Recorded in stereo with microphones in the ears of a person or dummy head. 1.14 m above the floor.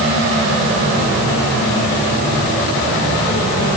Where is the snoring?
No snoring in this recording.